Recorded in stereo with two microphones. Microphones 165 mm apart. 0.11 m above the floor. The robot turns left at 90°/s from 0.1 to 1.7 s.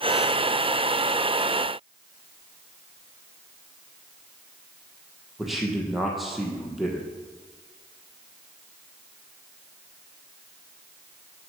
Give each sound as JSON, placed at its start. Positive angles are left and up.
{"t": 5.4, "sound": "a man speaking", "side_deg": 0, "distance_m": 3.5}